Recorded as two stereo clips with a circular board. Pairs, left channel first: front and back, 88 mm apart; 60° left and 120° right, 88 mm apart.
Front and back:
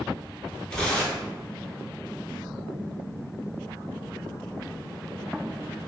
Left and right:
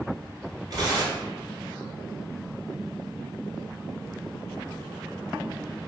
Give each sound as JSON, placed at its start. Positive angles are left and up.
{"t": 0.7, "sound": "tearing paper", "azimuth_deg": -80, "distance_m": 1.3}